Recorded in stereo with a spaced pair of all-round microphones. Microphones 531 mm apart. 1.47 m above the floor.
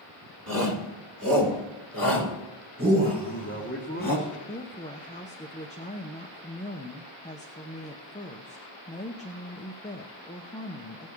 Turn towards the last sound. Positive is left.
turn(degrees=15)  # may be behind; listen again after turning